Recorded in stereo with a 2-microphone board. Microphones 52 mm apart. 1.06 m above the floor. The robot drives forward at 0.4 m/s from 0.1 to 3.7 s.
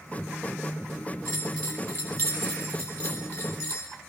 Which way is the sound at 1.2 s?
50° left (ahead or behind).